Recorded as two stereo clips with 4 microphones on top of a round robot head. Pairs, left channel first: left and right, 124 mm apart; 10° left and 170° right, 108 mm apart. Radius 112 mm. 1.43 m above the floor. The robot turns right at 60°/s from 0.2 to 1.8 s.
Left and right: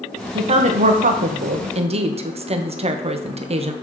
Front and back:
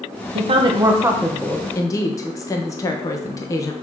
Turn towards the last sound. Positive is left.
turn(degrees=-50)